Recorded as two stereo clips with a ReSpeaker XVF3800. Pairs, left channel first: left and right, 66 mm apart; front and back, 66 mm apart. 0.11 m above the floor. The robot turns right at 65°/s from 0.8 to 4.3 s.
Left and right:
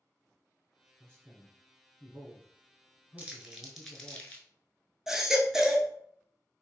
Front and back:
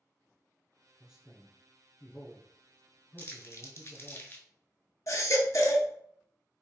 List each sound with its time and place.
1.0 s a man speaking: 100° right, 1.2 m; by 4.2 s 105° left, 1.2 m
3.2 s crumpling: 35° right, 0.6 m; by 4.5 s 35° left, 0.6 m
5.1 s a baby crying: 5° right, 0.6 m